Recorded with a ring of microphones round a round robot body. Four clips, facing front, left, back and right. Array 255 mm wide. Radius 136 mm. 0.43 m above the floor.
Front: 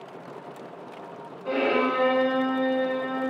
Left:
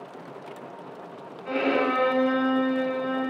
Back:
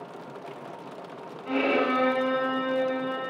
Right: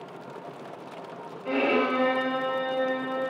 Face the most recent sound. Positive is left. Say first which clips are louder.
# even, front 1 dB
turn(degrees=-30)